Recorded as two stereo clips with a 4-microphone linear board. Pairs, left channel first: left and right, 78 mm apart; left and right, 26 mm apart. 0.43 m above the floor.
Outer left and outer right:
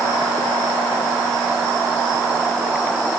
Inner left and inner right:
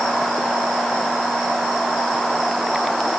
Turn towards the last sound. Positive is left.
No sound to turn to.